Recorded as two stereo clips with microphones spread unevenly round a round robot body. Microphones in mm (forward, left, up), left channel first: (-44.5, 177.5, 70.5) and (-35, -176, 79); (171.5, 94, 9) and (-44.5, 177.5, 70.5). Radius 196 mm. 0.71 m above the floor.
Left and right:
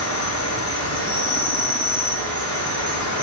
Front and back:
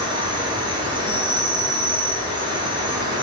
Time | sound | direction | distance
0.0 | an insect | 80° left | 2.5 m